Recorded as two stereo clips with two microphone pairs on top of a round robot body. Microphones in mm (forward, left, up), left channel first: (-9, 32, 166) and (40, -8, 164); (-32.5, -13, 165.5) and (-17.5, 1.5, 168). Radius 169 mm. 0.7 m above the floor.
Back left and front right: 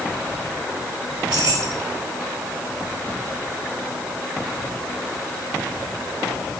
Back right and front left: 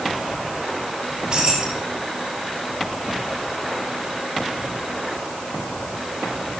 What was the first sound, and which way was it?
Keys jangling, 20° right.